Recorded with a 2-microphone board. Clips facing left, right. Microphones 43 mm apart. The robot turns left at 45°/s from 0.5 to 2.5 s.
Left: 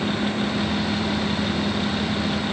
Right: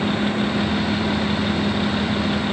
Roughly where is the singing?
No singing in this recording.